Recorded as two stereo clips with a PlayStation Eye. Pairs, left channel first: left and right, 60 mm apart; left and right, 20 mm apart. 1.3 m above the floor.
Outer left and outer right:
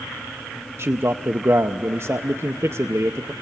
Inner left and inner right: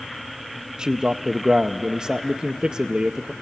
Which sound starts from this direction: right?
A man speaking, at 0.8 s.